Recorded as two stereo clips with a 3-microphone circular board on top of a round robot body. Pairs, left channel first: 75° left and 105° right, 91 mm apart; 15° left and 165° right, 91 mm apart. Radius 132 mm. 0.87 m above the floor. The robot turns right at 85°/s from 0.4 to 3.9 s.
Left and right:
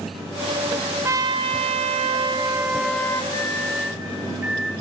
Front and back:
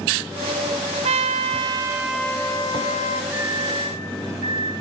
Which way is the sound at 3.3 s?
125° left.